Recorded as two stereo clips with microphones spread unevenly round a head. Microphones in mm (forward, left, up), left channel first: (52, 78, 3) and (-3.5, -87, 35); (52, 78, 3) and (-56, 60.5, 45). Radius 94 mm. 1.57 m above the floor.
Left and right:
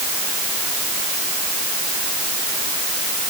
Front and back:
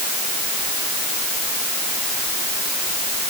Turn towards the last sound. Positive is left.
No sound to turn to.